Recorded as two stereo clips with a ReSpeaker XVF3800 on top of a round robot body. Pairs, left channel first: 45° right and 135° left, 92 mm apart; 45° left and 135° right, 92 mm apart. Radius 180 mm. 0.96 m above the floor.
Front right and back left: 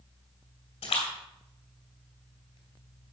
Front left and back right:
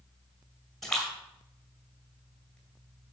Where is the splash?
40° right, 2 m.